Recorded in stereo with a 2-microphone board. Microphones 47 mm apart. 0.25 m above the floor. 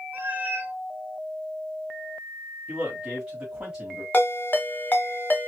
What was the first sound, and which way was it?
A cat meowing, 40° right (ahead or behind).